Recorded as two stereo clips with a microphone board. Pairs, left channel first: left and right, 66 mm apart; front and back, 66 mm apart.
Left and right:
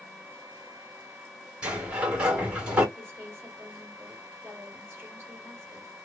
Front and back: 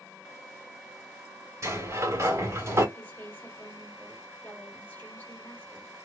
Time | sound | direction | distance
1.6 | a sliding door | 160° right | 1.7 m
3.0 | a woman speaking | 45° right | 1.6 m